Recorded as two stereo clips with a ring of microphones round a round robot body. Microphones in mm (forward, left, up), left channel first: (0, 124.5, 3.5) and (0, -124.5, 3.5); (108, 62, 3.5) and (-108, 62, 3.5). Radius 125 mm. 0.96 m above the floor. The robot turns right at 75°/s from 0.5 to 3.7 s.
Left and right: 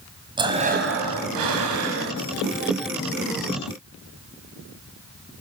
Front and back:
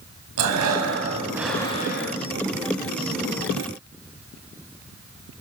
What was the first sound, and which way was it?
Breathing, 165° right.